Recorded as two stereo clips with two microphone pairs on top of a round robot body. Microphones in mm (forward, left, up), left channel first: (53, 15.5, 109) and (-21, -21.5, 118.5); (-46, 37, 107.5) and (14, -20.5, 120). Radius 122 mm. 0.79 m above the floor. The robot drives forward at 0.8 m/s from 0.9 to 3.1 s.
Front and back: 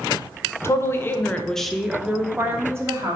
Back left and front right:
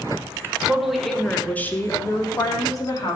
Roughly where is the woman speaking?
Ahead left.